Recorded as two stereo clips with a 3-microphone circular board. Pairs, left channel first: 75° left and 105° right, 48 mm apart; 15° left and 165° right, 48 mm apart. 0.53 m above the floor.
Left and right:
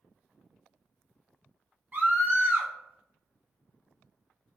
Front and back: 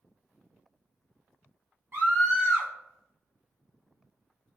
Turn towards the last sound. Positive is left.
turn(degrees=-150)